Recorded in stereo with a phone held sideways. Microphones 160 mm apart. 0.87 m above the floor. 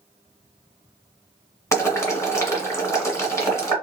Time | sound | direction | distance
1.7 | boiling | 20° left (ahead or behind) | 1.3 m